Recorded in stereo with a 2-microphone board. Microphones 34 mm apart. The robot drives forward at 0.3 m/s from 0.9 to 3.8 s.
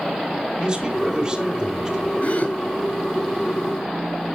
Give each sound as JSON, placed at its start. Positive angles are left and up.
{"t": 0.6, "sound": "a man speaking", "side_deg": -20, "distance_m": 2.5}
{"t": 2.2, "sound": "a gasp", "side_deg": 45, "distance_m": 2.5}